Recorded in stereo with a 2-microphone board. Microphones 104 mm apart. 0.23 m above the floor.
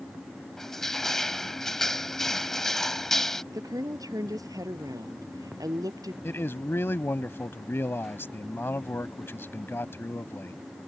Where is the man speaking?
20° left (ahead or behind).